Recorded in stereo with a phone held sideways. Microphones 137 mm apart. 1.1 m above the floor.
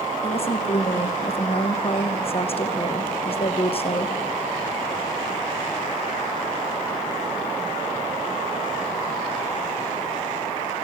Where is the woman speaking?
45° left (ahead or behind), 0.9 m.